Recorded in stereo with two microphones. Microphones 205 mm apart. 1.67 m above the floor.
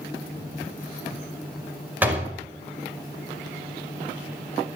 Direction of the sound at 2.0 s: 10° right (ahead or behind).